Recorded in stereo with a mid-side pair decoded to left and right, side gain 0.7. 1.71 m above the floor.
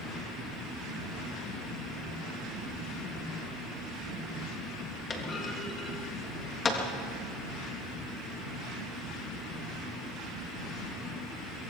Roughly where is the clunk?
Ahead left.